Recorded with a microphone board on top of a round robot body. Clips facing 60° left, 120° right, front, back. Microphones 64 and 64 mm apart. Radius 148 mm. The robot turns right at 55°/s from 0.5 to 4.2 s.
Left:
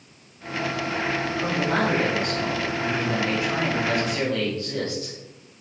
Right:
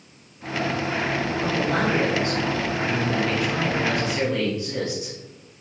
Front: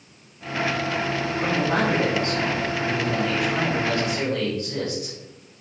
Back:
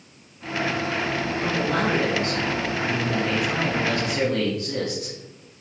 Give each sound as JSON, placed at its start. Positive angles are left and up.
{"t": 1.4, "sound": "a man speaking", "azimuth_deg": 15, "distance_m": 3.5}